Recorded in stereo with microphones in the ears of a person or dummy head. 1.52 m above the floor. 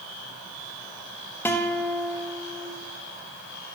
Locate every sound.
1.4 s a guitar: 15° left (ahead or behind), 0.9 m